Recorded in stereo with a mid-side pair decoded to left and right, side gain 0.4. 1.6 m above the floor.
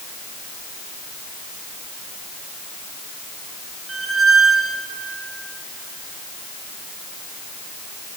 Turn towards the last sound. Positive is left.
turn(degrees=-35)